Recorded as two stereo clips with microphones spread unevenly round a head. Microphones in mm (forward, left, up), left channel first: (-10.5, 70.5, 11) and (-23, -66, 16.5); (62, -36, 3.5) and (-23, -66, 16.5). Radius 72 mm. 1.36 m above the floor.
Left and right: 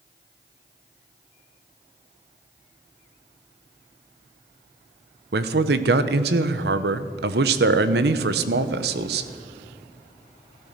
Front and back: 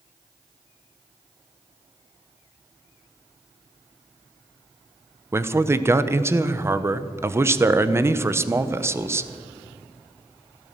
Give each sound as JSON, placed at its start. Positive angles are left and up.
{"t": 5.3, "sound": "a man speaking", "azimuth_deg": -95, "distance_m": 1.0}